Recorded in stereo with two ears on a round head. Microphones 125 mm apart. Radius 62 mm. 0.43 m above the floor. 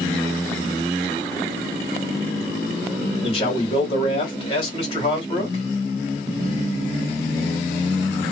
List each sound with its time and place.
3.2 s a man speaking: 40° left (ahead or behind), 1.4 m